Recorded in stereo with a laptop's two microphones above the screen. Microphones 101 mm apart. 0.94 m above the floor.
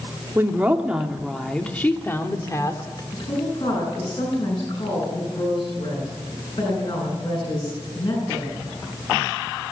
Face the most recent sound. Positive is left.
turn(degrees=60)  # may be behind; listen again after turning